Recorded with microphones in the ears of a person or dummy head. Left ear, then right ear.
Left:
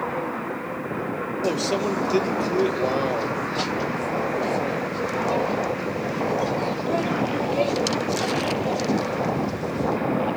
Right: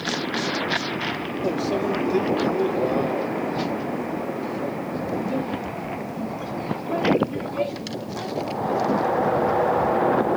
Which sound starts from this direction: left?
A microwave, at 1.4 s.